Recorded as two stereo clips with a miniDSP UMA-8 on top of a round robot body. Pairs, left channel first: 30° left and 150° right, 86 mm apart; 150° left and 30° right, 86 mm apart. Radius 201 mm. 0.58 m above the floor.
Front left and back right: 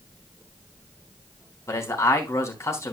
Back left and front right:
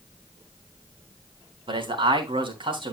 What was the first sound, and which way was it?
A man speaking, 25° right.